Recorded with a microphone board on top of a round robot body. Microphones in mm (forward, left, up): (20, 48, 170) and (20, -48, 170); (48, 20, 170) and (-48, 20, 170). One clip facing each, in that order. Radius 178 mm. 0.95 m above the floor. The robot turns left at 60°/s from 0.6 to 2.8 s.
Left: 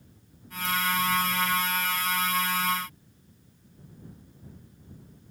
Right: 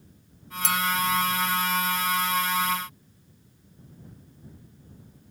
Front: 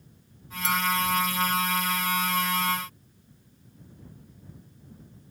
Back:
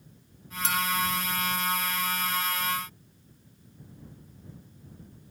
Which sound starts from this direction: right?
A clink, at 0.6 s.